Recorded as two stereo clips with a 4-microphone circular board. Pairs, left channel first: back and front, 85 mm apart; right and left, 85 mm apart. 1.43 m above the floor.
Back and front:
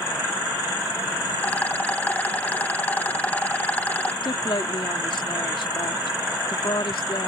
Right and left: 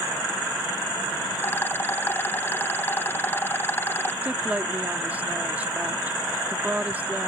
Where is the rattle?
125° right.